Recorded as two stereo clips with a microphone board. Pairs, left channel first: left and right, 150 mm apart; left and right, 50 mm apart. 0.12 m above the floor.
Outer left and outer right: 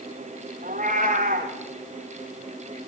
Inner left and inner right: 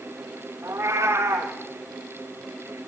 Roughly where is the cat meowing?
Right.